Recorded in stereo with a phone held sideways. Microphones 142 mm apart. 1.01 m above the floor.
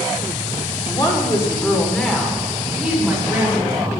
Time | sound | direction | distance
0.8 | a woman speaking | 30° left (ahead or behind) | 2 m